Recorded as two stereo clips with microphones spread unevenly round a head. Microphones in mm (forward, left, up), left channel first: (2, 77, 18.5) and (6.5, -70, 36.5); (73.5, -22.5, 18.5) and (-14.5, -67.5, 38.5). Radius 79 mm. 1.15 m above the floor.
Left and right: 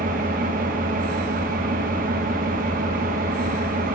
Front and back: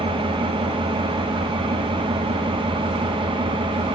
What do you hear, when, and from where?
0.0 s an engine running: 120° right, 1.1 m